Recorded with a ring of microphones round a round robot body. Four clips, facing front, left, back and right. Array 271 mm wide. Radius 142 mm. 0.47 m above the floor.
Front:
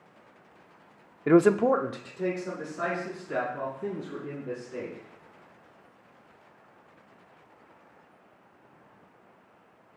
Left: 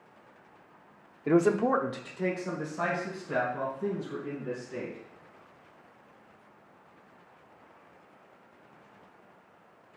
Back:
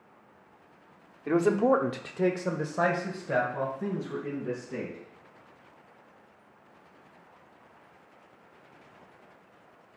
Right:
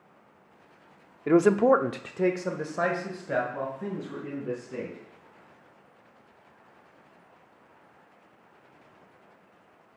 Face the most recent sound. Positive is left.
turn(degrees=-145)